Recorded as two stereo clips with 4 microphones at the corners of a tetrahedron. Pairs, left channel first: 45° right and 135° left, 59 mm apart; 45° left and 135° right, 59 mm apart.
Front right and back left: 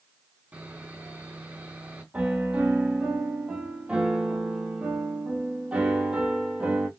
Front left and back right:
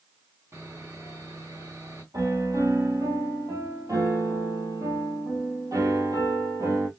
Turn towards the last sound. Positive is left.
turn(degrees=-155)